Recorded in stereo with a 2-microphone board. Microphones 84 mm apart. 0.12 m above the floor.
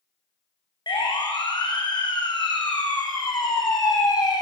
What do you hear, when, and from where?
0.9 s a siren: 65° left (ahead or behind), 6.5 m; by 4.4 s 55° left (ahead or behind), 3.5 m